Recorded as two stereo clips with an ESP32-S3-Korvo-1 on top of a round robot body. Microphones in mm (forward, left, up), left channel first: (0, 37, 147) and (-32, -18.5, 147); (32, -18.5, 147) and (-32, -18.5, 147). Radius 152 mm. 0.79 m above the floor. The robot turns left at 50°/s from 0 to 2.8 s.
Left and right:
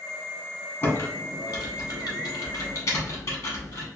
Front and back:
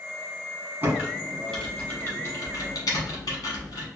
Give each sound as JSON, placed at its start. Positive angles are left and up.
{"t": 0.8, "sound": "typing on a keyboard", "azimuth_deg": 120, "distance_m": 1.2}